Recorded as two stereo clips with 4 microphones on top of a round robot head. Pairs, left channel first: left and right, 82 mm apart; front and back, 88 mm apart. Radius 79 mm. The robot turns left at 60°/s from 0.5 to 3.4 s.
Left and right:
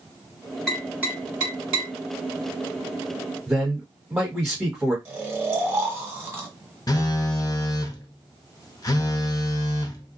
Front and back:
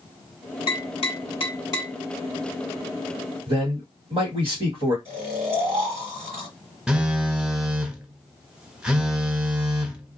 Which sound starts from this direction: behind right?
Snoring, at 5.0 s.